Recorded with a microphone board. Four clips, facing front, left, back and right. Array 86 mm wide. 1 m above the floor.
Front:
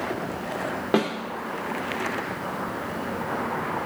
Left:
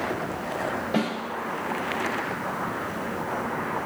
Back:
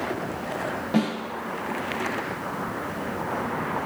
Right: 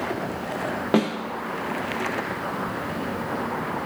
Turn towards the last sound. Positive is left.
turn(degrees=-55)